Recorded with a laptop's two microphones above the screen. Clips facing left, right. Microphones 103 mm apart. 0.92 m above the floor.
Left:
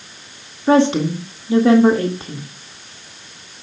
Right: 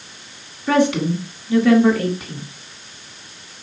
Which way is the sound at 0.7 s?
30° left (ahead or behind).